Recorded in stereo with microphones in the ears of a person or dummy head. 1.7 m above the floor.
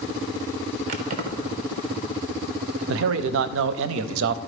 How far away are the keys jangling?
About 1.0 m.